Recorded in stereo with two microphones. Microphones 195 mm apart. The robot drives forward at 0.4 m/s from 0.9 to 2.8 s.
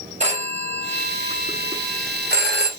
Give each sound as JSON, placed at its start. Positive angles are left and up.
{"t": 0.2, "sound": "a phone ringing", "side_deg": -35, "distance_m": 0.9}